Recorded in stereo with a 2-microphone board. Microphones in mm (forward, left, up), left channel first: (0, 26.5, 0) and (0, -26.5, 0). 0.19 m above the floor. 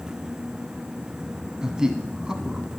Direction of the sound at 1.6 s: 15° right (ahead or behind).